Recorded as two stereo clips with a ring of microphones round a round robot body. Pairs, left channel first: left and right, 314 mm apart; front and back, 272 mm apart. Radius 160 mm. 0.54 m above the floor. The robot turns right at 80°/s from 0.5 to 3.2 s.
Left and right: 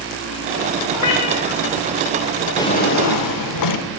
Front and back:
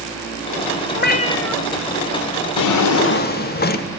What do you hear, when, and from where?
0.9 s a cat meowing: 45° left, 0.8 m; by 1.6 s 100° left, 0.8 m
2.6 s a drawer: 5° left, 0.7 m; by 3.9 s 60° left, 0.7 m